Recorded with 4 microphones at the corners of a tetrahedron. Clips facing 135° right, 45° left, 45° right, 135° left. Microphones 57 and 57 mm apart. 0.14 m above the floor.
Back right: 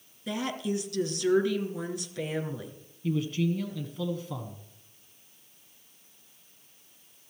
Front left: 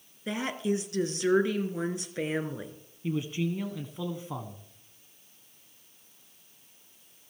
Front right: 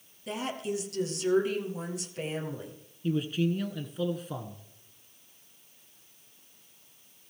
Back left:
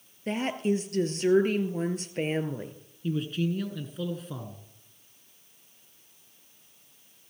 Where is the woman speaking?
100° left, 1.9 m.